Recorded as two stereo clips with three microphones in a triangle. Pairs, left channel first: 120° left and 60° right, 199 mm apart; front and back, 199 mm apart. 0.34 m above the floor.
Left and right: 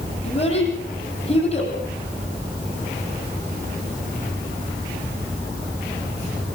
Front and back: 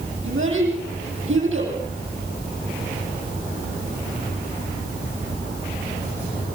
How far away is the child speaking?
About 9.5 m.